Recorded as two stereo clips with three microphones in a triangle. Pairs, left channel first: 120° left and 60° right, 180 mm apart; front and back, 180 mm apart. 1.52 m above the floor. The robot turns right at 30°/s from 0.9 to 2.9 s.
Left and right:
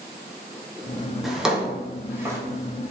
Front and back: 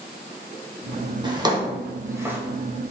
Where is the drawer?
150° right, 0.8 m; by 2.4 s 115° right, 0.8 m.